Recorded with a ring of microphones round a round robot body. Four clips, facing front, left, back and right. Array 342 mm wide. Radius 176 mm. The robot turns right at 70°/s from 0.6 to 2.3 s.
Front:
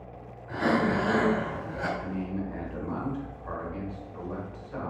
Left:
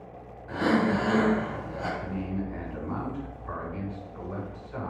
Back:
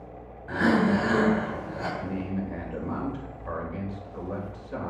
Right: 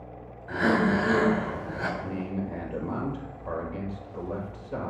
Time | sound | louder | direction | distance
0.5 | breathing | right 1 dB, back 3 dB | 170° right | 5 m
2.0 | a man speaking | right 1 dB, back 1 dB | 140° right | 3 m